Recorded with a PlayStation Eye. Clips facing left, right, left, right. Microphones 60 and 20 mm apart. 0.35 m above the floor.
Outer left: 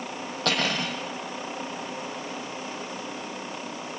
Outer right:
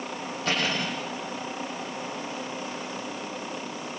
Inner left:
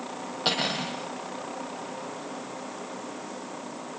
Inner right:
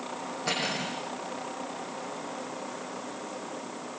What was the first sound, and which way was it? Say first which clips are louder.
Cutlery clinking: outer left 1 dB, inner left 4 dB; 75° left (ahead or behind).